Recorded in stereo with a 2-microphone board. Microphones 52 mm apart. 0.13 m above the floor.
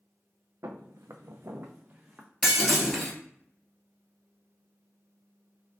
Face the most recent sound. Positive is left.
turn(degrees=-5)  # may be behind; listen again after turning